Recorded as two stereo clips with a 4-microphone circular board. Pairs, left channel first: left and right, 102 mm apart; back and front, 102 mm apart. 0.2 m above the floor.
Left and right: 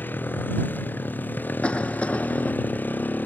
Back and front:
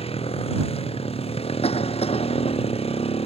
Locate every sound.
0.0 s a motorcycle: 160° left
1.6 s a cough: 170° left